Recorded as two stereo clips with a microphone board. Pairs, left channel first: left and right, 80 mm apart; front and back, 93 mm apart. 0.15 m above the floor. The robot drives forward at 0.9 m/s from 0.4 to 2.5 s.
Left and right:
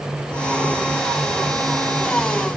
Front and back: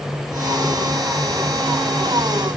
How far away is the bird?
I don't hear a bird.